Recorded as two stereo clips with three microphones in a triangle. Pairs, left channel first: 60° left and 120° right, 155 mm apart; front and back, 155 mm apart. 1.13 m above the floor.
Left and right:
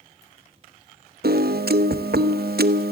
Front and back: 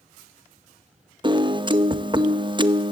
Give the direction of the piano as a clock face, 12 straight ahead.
4 o'clock.